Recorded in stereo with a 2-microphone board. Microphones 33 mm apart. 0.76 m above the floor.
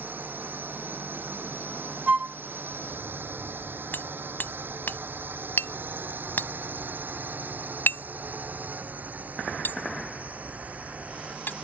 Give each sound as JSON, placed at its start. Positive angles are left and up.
{"t": 0.0, "sound": "a drone", "side_deg": -75}
{"t": 2.1, "sound": "a flute", "side_deg": -45}
{"t": 3.9, "sound": "hammering", "side_deg": 80}